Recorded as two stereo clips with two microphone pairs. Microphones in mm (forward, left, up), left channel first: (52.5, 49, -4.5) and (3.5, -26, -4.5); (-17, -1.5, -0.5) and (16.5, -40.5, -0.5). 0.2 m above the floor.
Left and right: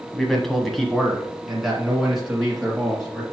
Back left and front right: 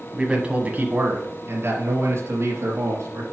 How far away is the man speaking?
About 1.1 m.